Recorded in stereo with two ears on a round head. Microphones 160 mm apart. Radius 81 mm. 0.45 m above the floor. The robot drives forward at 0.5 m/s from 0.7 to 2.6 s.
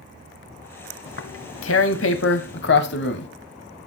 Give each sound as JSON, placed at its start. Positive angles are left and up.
{"t": 1.1, "sound": "tearing paper", "side_deg": 70, "distance_m": 1.2}